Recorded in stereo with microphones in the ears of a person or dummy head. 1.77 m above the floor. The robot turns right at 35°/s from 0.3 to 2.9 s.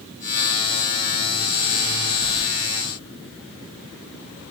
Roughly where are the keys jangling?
Right.